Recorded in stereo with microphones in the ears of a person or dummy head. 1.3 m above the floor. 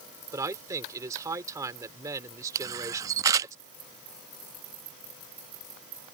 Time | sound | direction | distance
0.3 | a man speaking | 15° right (ahead or behind) | ?
2.5 | a camera shutter | 15° right (ahead or behind) | ?